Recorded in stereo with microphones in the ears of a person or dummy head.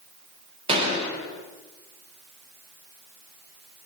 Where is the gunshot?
35° right (ahead or behind), 4 m.